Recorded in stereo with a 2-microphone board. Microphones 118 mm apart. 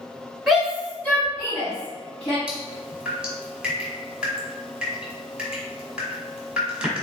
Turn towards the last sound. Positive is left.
turn(degrees=-10)  # may be behind; listen again after turning